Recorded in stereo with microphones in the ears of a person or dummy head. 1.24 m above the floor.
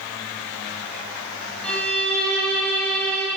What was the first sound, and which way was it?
A violin, 10° left (ahead or behind).